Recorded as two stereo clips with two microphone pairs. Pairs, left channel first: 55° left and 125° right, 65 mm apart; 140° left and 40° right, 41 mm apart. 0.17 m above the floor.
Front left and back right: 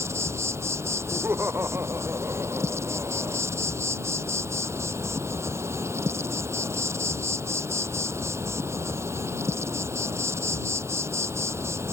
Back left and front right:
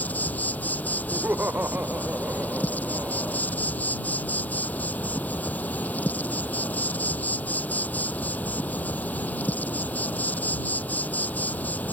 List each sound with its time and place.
0.0 s an insect: 170° right
1.1 s laughter: 75° right